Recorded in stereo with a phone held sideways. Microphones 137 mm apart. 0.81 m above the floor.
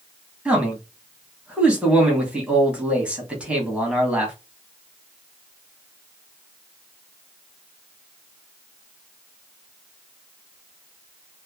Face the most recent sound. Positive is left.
turn(degrees=-10)  # may be behind; listen again after turning